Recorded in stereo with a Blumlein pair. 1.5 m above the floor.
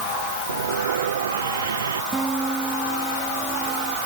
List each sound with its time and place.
0.5 s sawing: 65° right
2.1 s a guitar: 10° right